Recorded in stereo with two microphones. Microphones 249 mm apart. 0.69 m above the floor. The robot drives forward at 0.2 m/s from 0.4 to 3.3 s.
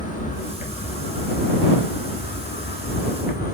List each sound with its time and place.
0.0 s an insect: 30° left (ahead or behind), 0.9 m; by 3.5 s 40° left (ahead or behind), 0.7 m